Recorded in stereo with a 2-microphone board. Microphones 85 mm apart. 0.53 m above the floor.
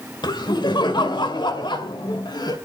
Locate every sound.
0.2 s laughter: 60° left (ahead or behind), 2 m; by 2.6 s 55° left (ahead or behind), 2.5 m